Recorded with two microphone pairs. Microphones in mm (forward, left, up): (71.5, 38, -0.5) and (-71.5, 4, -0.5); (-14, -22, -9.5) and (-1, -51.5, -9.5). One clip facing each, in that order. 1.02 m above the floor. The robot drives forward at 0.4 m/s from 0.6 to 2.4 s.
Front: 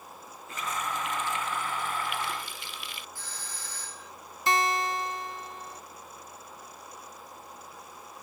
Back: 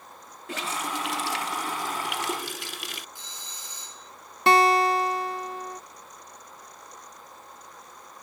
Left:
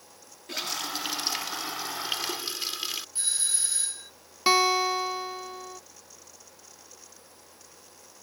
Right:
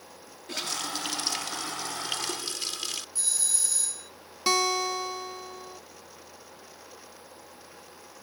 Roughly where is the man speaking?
I don't hear a man speaking.